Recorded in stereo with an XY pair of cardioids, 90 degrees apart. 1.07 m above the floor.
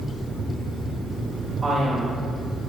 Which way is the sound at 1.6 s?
40° right.